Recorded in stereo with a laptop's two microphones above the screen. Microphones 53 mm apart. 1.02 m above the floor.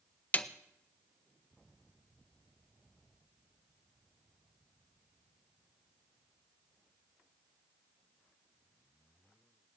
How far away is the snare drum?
About 0.6 m.